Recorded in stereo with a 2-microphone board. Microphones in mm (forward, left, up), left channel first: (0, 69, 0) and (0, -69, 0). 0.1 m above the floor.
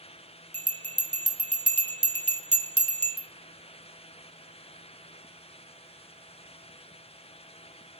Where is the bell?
50° right (ahead or behind), 0.6 m.